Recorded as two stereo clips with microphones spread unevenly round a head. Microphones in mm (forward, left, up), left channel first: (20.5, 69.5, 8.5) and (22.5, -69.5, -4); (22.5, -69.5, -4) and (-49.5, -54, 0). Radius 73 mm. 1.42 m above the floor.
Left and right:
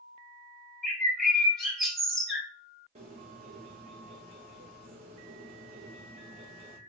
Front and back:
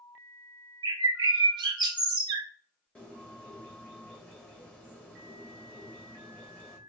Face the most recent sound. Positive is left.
turn(degrees=-75)